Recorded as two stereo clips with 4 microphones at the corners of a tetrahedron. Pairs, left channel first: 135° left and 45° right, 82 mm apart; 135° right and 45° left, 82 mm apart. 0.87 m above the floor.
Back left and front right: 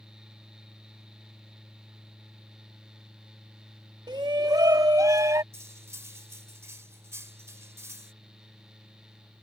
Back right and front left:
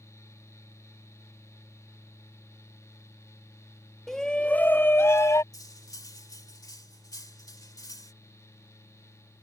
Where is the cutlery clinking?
100° right.